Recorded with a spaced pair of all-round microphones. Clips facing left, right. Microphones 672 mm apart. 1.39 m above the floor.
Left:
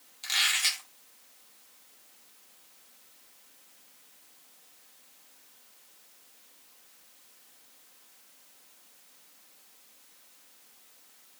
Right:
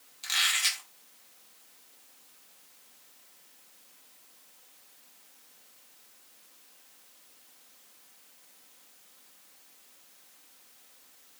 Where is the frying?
No frying in this recording.